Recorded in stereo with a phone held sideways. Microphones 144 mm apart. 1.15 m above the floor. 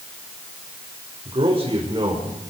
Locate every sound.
1.2 s a man speaking: 45° right (ahead or behind), 5 m; by 2.5 s 25° right (ahead or behind), 4.5 m